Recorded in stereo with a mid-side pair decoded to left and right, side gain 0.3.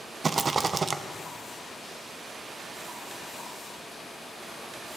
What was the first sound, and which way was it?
A rattle, 50° right.